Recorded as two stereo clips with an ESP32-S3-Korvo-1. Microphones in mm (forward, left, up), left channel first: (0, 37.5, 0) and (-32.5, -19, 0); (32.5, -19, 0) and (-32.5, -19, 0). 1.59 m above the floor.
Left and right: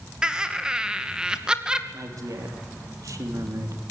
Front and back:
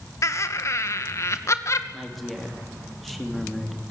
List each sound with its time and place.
0.2 s laughter: 45° right, 2 m
1.9 s a woman speaking: 90° right, 3 m